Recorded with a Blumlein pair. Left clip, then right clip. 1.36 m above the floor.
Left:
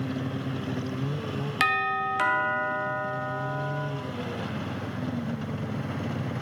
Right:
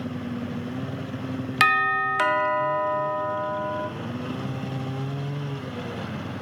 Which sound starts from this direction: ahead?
A doorbell, at 1.6 s.